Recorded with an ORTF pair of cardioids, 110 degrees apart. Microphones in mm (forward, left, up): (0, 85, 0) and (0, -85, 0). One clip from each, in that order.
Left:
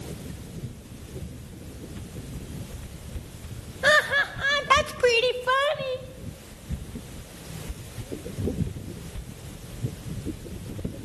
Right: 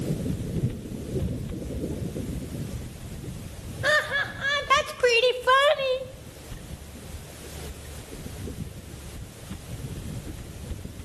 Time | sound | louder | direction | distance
3.8 | laughter | left 3 dB | 25° left | 1.3 m